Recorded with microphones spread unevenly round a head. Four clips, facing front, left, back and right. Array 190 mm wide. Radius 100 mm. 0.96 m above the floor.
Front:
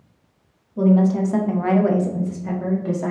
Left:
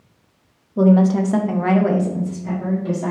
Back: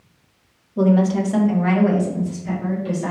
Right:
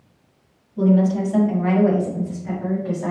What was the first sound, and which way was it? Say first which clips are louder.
A woman speaking: left 3 dB, even; 110° left.